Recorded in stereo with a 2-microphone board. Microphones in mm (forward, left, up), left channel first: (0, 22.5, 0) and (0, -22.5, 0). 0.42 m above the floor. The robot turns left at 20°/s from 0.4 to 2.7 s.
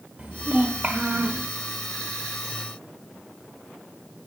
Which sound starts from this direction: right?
A child speaking, at 0.2 s.